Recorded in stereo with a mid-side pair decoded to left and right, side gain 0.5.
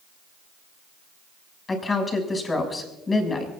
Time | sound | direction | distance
1.7 | a woman speaking | 25° left | 6.5 m